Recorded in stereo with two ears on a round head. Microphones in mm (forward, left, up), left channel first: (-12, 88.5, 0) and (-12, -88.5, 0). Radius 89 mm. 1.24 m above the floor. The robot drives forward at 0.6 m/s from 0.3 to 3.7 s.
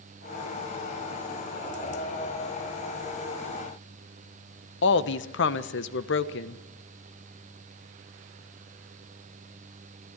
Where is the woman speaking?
65° left (ahead or behind), 1.1 m.